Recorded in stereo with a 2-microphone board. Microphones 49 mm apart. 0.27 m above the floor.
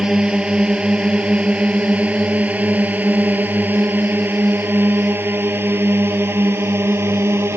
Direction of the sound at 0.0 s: 20° right (ahead or behind).